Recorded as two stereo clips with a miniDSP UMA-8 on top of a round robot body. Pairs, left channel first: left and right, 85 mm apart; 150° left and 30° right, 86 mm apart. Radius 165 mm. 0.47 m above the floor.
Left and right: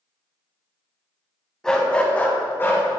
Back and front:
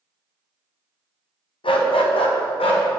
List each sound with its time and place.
1.6 s a dog barking: 175° left, 1.2 m; by 2.8 s 155° left, 1.8 m